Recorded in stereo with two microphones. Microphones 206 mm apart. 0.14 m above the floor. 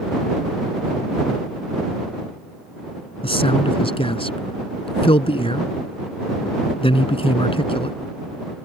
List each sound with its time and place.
3.2 s a man speaking: 25° left (ahead or behind)